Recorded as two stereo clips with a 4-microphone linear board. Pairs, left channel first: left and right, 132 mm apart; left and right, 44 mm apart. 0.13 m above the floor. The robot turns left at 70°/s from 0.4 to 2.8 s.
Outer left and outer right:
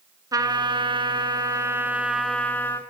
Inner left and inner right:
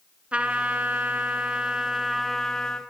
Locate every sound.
0.3 s a trumpet: 50° right, 1.0 m; by 2.8 s 140° left, 1.0 m